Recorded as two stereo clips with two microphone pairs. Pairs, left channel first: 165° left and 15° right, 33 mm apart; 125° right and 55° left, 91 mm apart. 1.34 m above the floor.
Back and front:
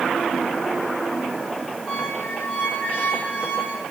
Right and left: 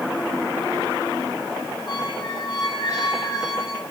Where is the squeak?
170° right, 3.5 m.